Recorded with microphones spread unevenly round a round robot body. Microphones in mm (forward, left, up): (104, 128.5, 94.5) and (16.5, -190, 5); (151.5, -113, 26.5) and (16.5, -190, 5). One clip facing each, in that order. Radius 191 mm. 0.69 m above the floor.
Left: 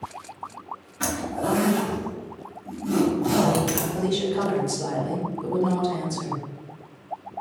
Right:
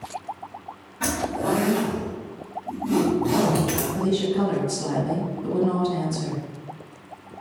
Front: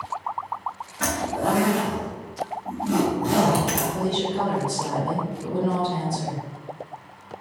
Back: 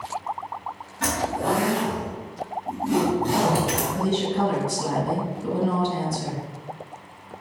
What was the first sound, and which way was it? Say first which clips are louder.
A zipper: right 2 dB, even; 50° left.